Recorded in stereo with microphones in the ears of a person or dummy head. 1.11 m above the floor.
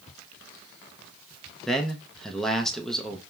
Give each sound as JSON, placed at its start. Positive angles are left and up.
{"t": 1.7, "sound": "a man speaking", "side_deg": 0, "distance_m": 0.7}